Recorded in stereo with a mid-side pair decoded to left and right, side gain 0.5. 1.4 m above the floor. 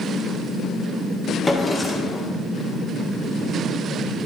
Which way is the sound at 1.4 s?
30° left.